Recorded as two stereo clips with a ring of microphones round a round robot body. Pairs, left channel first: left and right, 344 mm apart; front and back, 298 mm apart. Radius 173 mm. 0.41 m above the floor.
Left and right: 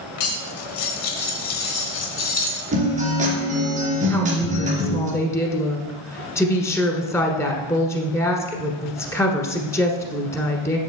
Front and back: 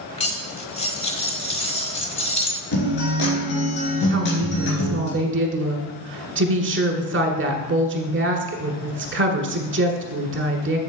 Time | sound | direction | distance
0.2 | cutlery clinking | 70° left | 1.1 m
2.7 | a guitar | 20° right | 2.5 m
4.1 | a woman speaking | 170° left | 1.3 m